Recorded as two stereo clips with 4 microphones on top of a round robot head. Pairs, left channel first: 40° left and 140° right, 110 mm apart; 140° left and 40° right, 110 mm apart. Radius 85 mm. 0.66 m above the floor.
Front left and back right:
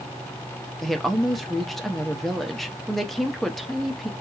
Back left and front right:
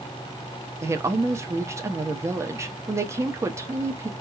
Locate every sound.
0.8 s a woman speaking: 45° right, 0.9 m